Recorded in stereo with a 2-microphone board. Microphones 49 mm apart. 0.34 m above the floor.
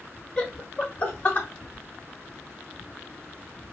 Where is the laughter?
15° left (ahead or behind), 1.2 m; by 1.5 s 30° left (ahead or behind), 1.3 m.